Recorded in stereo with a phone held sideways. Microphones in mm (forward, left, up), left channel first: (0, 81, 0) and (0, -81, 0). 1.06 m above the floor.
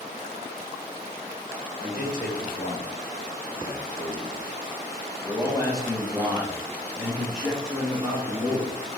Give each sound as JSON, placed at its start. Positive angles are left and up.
{"t": 1.8, "sound": "a man speaking", "side_deg": 65, "distance_m": 2.0}